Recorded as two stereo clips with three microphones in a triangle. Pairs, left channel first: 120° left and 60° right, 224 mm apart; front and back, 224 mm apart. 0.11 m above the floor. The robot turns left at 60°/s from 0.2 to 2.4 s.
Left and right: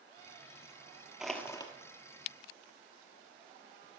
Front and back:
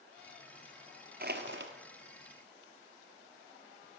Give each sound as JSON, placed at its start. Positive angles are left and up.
{"t": 1.2, "sound": "crushing", "azimuth_deg": -145, "distance_m": 1.2}